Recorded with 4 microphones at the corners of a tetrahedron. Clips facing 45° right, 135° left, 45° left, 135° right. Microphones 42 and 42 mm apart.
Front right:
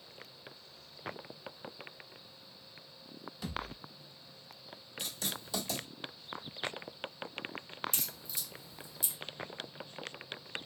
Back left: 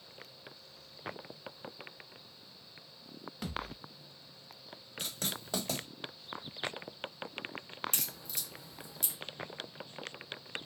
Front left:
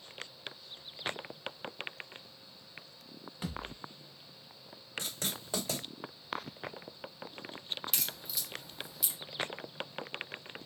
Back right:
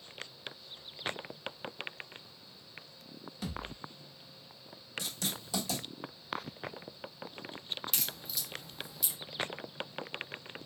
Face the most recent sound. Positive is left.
turn(degrees=130)